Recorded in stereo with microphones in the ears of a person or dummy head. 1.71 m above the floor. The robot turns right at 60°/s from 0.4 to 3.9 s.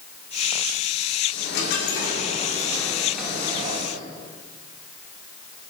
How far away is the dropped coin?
About 2 m.